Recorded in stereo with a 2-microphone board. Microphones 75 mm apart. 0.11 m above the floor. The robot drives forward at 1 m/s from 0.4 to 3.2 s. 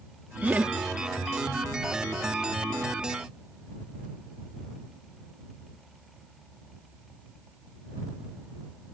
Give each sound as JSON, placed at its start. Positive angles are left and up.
{"t": 0.4, "sound": "laughter", "side_deg": -20}